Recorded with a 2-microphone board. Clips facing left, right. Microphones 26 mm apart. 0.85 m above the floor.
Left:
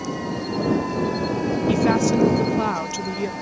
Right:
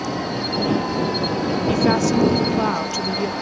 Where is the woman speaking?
Centre (ahead or behind).